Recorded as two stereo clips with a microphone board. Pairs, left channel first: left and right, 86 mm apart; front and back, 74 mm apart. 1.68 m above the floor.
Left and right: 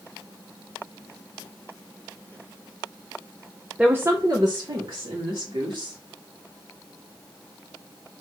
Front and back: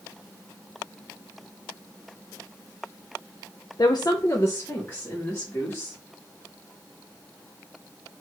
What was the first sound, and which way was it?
A woman speaking, 10° right.